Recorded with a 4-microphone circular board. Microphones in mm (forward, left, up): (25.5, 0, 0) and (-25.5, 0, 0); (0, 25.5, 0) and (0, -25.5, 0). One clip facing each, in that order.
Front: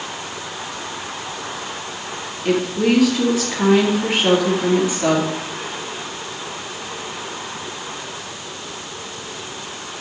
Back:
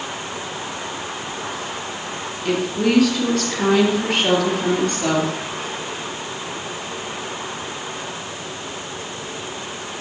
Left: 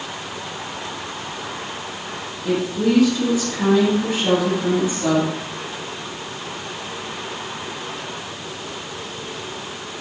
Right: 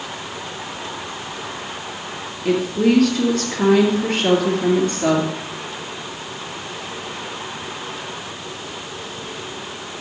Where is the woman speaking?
85° right, 3 m.